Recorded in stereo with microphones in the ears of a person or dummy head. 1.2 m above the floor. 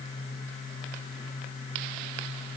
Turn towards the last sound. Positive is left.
No sound to turn to.